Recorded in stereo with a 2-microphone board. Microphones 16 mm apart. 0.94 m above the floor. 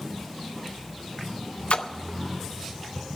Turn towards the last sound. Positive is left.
turn(degrees=80)